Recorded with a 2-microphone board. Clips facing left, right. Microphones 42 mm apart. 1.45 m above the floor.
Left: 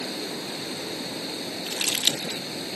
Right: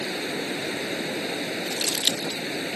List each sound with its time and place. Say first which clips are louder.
0.0 s running water: right 4 dB; 40° right (ahead or behind)
1.7 s crumpling: left 3 dB; 50° left (ahead or behind)